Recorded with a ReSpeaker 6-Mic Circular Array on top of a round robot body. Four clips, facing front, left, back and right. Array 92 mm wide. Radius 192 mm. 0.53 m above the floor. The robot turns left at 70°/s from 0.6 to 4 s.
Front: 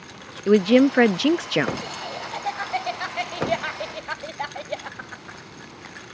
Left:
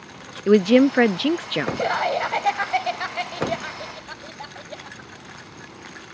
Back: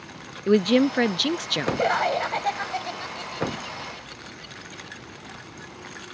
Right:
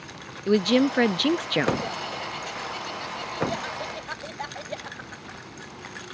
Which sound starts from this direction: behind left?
Laughter, at 1.8 s.